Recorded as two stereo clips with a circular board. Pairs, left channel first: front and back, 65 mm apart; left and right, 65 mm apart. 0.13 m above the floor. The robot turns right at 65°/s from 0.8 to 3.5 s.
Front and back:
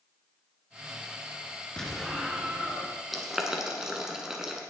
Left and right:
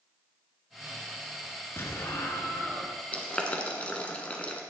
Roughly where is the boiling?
Left.